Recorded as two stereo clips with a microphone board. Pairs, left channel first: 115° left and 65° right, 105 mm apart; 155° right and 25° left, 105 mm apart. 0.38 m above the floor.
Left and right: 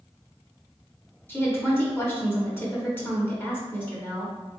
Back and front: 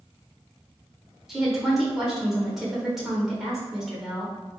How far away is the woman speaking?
About 1.1 m.